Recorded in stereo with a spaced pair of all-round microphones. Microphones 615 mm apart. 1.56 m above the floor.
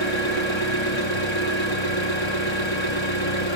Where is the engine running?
45° left (ahead or behind), 2.5 m.